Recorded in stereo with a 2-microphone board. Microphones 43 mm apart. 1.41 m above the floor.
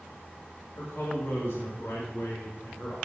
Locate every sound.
0.8 s a man speaking: 65° left (ahead or behind), 2.5 m